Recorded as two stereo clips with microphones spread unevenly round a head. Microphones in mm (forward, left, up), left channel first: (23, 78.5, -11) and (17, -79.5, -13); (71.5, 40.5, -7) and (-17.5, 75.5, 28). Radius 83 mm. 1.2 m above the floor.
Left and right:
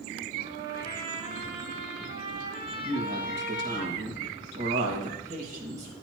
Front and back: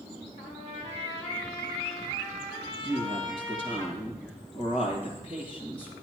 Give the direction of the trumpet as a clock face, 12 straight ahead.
1 o'clock.